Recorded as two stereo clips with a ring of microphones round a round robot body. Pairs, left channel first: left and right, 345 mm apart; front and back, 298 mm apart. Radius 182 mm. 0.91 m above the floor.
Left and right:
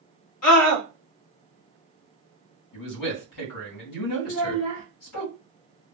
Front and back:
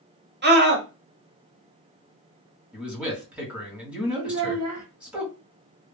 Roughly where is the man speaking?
Left.